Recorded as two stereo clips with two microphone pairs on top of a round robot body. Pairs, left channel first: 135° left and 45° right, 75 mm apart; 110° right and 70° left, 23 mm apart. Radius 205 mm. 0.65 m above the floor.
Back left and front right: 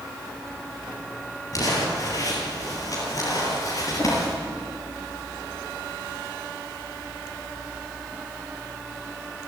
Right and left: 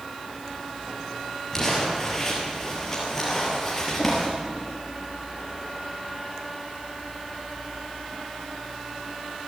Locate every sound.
1.5 s crumpling: straight behind, 5 m